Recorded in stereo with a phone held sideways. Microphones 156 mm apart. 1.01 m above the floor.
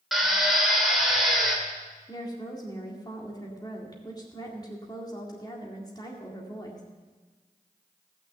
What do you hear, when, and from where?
0.1 s a drill: centre (ahead or behind), 2 m
2.1 s a woman speaking: 25° left (ahead or behind), 2.0 m